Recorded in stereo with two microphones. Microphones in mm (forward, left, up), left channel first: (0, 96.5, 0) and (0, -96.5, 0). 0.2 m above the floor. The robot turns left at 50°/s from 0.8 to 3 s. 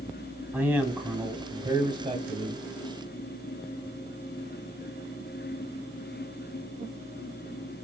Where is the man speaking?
10° right (ahead or behind), 1.4 m; by 2.6 s 20° right (ahead or behind), 1.4 m.